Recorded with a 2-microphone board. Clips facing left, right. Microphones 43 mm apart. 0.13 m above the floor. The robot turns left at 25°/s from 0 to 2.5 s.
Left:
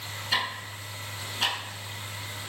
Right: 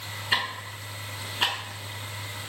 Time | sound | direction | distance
0.3 | ticking | 30° right (ahead or behind) | 0.7 m